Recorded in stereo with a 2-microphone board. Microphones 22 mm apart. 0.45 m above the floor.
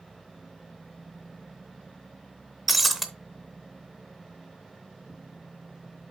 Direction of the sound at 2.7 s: 5° right (ahead or behind).